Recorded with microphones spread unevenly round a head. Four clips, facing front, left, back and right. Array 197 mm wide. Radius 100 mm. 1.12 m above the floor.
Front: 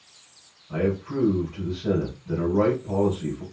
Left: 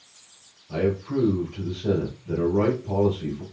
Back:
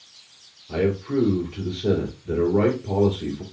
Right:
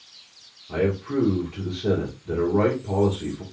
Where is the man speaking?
160° right, 2.5 m.